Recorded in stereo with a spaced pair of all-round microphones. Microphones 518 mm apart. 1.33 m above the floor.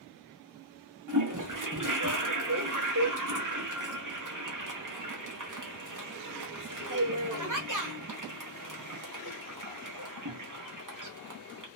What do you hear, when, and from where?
1.1 s a toilet flushing: 40° right (ahead or behind), 0.8 m